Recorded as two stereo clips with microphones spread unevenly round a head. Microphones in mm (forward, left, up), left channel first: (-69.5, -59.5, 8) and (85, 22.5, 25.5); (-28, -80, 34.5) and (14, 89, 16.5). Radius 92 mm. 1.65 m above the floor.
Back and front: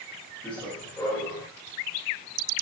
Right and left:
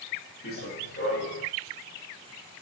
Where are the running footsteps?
70° right, 8 m.